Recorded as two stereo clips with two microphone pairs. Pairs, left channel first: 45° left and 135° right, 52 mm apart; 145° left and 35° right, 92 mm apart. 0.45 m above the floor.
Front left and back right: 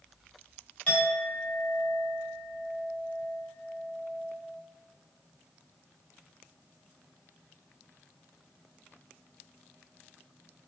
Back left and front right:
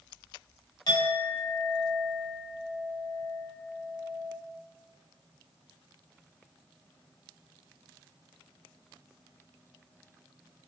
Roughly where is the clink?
Left.